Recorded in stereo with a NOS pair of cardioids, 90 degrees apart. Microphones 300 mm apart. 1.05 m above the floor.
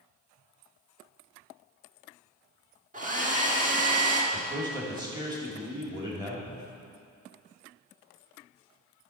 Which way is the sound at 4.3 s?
15° right.